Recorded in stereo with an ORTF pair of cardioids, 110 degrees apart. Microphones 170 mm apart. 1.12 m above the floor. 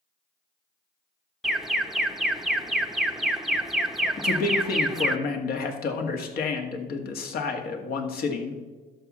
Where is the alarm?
Straight ahead, 0.8 m.